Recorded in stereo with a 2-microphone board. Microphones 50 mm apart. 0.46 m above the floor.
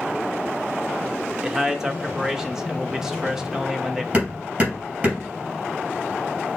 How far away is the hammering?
About 3 m.